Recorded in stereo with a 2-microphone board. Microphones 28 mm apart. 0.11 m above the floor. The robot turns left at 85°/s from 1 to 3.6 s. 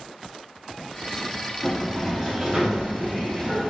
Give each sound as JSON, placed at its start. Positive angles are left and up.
{"t": 1.6, "sound": "a sliding door", "side_deg": 5, "distance_m": 1.4}